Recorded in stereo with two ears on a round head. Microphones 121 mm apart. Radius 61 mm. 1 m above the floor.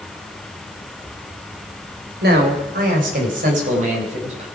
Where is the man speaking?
90° right, 3.5 m; by 4.5 s 50° right (ahead or behind), 4.5 m.